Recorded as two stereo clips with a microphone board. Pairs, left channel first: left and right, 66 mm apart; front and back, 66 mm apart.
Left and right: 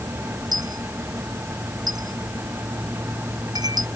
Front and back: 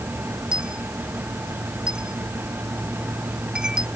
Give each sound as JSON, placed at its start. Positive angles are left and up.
{"t": 0.5, "sound": "a dropped coin", "azimuth_deg": -105}